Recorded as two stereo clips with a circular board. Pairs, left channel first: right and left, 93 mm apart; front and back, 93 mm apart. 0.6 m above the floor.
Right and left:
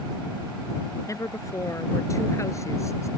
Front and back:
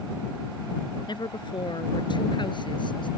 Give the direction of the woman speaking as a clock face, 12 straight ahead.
1 o'clock.